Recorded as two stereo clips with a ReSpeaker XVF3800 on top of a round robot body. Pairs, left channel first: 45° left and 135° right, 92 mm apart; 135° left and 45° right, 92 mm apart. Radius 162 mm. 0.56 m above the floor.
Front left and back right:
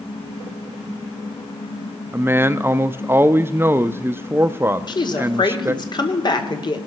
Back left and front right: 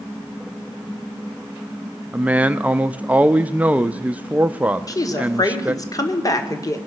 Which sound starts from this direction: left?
A woman speaking, at 4.9 s.